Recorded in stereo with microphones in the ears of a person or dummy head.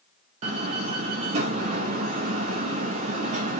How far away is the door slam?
About 0.6 m.